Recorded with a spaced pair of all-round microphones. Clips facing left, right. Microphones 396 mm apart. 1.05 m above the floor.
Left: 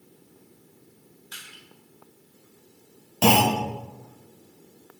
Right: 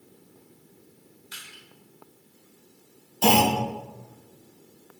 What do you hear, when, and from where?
1.3 s crushing: 35° right (ahead or behind), 3 m
3.2 s a clunk: 90° left, 1.6 m